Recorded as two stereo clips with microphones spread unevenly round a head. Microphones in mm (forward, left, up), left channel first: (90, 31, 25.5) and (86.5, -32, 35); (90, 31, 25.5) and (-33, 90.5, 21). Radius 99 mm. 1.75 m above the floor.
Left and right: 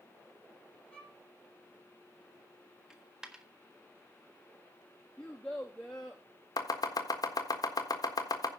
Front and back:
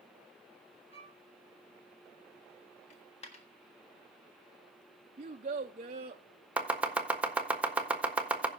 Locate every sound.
0.9 s a violin: 10° left, 6 m
2.9 s a dropped coin: 25° right, 1.4 m
5.2 s a child speaking: 175° left, 0.6 m
6.6 s chopping: 75° left, 1.4 m